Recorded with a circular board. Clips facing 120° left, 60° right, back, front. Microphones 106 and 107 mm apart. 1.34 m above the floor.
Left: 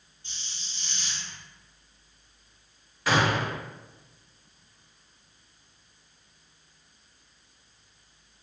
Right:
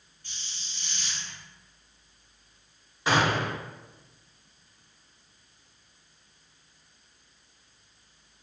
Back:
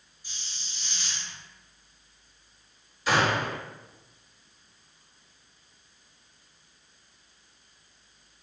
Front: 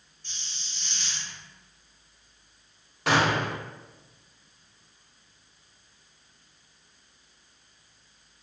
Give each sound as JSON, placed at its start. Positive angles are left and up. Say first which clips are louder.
{"t": 0.2, "sound": "a hiss", "louder": "even, even", "azimuth_deg": 115, "distance_m": 0.7}
{"t": 3.1, "sound": "a gunshot", "louder": "even, front 1 dB", "azimuth_deg": 5, "distance_m": 1.0}